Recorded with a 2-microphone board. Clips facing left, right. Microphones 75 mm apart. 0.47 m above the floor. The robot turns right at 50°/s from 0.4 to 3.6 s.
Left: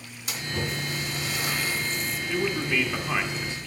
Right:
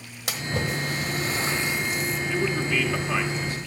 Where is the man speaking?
Centre (ahead or behind), 1.3 m; by 3.6 s 25° left (ahead or behind), 1.3 m.